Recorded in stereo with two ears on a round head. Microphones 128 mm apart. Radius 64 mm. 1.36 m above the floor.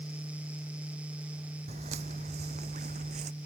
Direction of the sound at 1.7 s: 50° right (ahead or behind).